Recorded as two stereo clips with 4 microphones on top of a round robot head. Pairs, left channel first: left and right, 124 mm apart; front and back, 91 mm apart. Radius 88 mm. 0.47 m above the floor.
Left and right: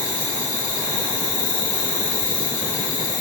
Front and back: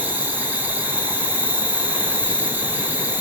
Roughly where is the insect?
Left.